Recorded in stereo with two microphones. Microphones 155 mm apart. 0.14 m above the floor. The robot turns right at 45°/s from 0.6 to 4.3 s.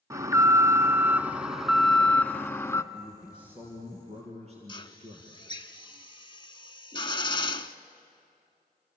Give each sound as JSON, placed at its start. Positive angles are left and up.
{"t": 0.1, "sound": "an alarm", "side_deg": -20, "distance_m": 0.9}
{"t": 2.9, "sound": "a man speaking", "azimuth_deg": 170, "distance_m": 3.5}
{"t": 4.7, "sound": "a drill", "side_deg": 30, "distance_m": 0.7}